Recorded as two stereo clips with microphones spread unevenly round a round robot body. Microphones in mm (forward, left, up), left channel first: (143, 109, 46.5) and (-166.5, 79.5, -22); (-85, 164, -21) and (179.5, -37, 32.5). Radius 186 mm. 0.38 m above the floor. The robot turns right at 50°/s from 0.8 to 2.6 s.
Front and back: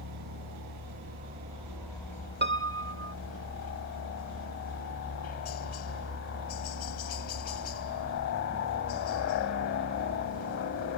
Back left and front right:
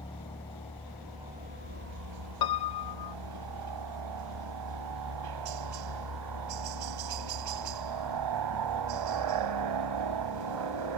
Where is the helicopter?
140° right; by 11.0 s 50° right.